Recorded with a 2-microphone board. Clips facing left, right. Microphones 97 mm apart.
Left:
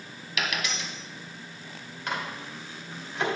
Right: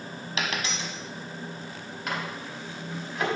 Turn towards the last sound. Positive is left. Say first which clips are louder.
# even
turn(degrees=-5)  # may be behind; listen again after turning